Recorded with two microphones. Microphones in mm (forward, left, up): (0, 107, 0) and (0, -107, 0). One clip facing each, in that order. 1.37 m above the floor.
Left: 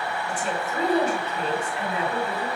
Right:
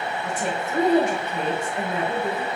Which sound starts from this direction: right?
A woman speaking, at 0.2 s.